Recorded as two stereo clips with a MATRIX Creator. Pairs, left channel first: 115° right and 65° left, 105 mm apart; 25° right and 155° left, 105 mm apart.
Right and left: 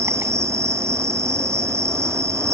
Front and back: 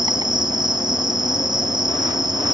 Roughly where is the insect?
Behind left.